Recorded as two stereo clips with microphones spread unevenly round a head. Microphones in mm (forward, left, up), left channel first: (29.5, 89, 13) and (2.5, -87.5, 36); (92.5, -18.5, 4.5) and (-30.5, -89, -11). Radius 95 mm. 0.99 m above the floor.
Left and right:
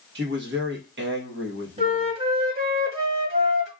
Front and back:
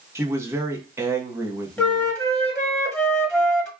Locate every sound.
0.1 s a man speaking: 85° right, 1.3 m
1.8 s a flute: 50° right, 1.5 m